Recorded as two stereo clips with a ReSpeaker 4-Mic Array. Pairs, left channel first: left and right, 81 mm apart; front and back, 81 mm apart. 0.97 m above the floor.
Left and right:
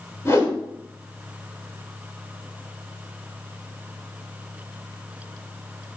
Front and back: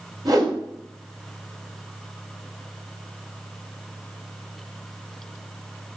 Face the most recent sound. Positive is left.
turn(degrees=145)